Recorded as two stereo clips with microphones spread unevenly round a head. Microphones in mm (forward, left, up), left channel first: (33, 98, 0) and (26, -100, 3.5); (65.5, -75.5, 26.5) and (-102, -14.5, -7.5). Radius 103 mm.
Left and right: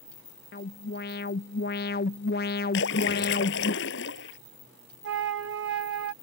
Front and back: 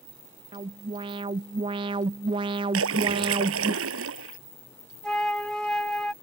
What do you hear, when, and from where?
0.5 s an alarm: 110° left
2.7 s a splash: 130° left
5.0 s a flute: 110° right